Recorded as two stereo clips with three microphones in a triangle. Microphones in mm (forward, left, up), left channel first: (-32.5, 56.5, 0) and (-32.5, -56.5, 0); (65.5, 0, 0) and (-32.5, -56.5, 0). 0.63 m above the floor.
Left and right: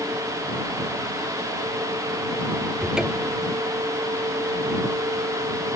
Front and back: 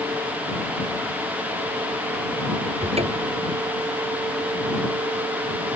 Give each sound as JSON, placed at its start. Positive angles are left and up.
{"t": 2.8, "sound": "a cupboard door", "azimuth_deg": -175}